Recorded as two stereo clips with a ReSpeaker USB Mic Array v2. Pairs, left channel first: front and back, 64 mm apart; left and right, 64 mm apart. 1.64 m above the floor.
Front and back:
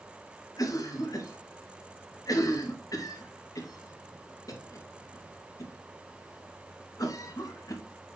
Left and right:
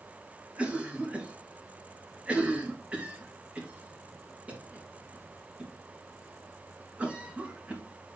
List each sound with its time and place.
0.6 s a cough: 20° right, 2.5 m